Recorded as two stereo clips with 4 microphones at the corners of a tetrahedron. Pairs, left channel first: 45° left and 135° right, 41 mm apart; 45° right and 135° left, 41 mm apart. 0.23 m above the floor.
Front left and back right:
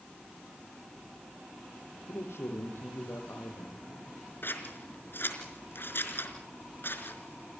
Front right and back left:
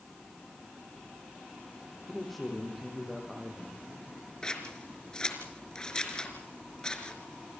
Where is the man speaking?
40° left, 8 m; by 4.0 s 55° left, 10 m.